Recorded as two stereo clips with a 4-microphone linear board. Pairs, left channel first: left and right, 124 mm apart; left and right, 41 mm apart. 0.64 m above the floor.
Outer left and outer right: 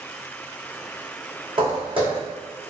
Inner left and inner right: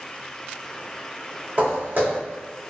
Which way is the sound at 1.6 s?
45° right (ahead or behind).